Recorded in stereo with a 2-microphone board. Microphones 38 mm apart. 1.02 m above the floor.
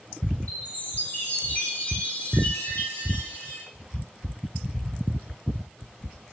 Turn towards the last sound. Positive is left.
turn(degrees=50)  # may be behind; listen again after turning